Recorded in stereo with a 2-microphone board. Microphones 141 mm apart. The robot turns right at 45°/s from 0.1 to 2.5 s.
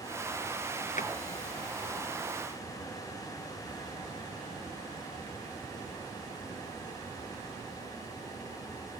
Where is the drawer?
65° left (ahead or behind), 1.8 m.